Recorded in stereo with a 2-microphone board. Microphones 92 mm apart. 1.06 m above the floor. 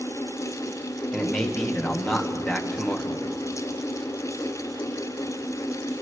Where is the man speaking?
5° left (ahead or behind), 1.2 m.